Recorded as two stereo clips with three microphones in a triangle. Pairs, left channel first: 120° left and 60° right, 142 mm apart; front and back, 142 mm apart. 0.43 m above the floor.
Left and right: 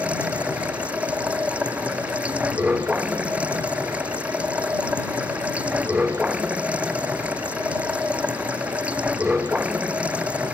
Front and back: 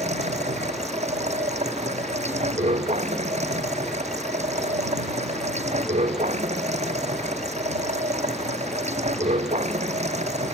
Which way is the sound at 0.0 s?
140° right.